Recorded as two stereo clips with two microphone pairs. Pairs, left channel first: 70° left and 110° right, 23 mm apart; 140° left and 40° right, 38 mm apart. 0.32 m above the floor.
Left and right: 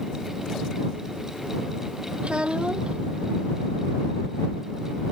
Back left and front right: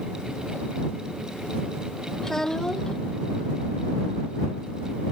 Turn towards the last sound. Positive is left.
turn(degrees=-145)